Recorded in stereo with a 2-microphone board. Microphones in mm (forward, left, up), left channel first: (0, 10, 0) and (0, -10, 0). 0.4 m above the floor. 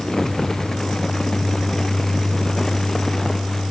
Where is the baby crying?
I don't hear a baby crying.